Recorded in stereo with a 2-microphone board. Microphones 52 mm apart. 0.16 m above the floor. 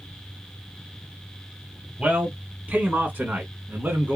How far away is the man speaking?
About 1.8 m.